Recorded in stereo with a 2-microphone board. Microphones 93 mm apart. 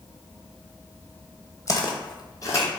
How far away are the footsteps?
About 0.8 m.